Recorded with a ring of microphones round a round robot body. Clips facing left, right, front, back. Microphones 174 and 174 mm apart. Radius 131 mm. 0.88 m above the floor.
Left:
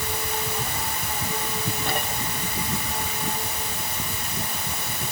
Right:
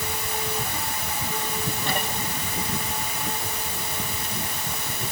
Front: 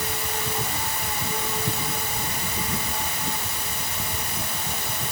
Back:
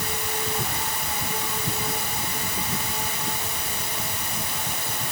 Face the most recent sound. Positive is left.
No sound to turn to.